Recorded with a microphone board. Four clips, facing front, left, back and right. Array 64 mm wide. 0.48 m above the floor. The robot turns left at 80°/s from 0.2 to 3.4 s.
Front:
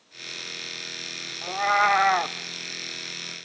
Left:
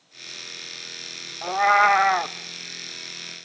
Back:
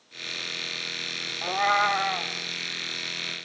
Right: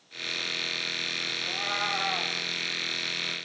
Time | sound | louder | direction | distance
1.4 | a cat meowing | left 16 dB, front 1 dB | 110° left | 0.5 m